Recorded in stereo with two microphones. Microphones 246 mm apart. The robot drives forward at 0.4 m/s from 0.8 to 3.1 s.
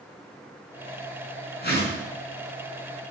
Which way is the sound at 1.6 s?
40° left (ahead or behind).